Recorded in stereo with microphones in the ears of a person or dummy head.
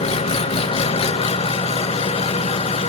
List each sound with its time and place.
0.0 s an engine running: 35° left (ahead or behind), 1.0 m